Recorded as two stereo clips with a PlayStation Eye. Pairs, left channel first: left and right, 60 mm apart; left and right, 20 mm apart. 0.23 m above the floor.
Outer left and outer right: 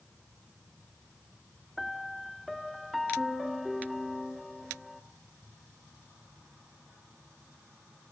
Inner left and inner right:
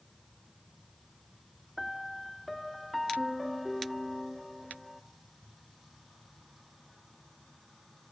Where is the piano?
Centre (ahead or behind), 0.7 m.